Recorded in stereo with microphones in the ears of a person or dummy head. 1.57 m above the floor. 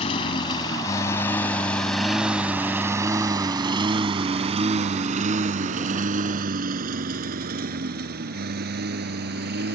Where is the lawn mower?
40° left (ahead or behind); by 9.8 s 55° right (ahead or behind).